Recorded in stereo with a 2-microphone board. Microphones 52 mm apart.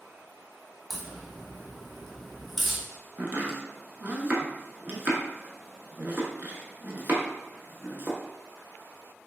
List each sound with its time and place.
0.9 s a crack: centre (ahead or behind), 1.0 m
3.2 s chopping: 40° right (ahead or behind), 0.8 m